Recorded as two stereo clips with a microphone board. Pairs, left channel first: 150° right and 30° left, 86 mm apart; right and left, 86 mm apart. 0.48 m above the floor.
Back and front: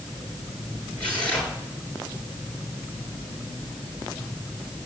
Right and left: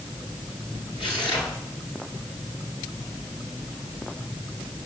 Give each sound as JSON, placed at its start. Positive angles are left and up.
{"t": 1.0, "sound": "tearing paper", "azimuth_deg": -75, "distance_m": 7.5}